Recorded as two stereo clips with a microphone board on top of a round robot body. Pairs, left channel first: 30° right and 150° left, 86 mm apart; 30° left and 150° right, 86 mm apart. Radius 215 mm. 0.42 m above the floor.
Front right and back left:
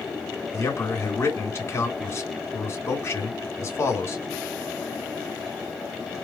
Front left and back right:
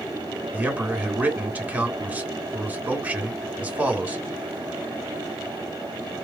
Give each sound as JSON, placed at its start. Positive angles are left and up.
{"t": 0.5, "sound": "a man speaking", "azimuth_deg": -85, "distance_m": 2.0}